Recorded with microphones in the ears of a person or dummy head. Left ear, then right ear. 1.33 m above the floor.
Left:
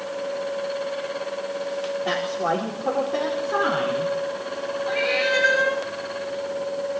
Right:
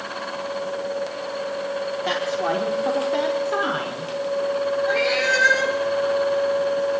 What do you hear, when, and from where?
2.0 s a woman speaking: 20° right (ahead or behind), 4 m; by 4.1 s 10° right (ahead or behind), 5.5 m
4.9 s a cat meowing: 60° right (ahead or behind), 7.5 m